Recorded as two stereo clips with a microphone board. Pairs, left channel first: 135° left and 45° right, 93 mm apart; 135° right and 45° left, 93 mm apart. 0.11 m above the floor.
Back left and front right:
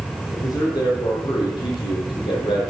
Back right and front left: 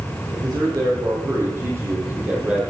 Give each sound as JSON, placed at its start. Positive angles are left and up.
{"t": 0.3, "sound": "a man speaking", "azimuth_deg": 90, "distance_m": 4.0}